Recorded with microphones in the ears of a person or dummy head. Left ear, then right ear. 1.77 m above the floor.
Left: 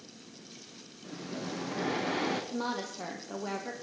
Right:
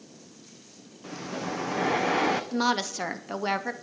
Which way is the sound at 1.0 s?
35° right (ahead or behind).